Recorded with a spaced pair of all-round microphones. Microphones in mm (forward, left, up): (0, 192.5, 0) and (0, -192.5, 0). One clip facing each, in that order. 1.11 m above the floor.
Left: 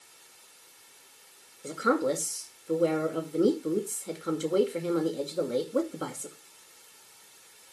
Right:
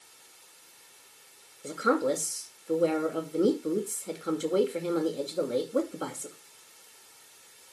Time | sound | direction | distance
1.6 | a woman speaking | centre (ahead or behind) | 2.5 m